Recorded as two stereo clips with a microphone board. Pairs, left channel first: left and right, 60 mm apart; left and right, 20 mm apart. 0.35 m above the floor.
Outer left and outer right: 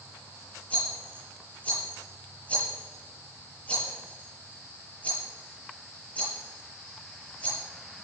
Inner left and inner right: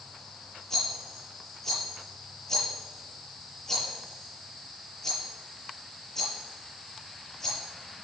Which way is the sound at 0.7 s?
20° left (ahead or behind).